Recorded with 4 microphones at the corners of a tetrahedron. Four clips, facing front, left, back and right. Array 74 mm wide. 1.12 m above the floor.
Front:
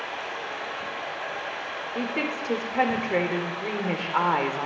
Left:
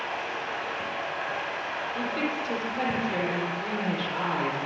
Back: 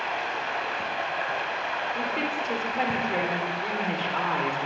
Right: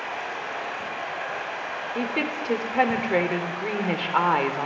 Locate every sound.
0.0 s running water: 170° right, 6 m
1.9 s a woman speaking: 65° right, 3.5 m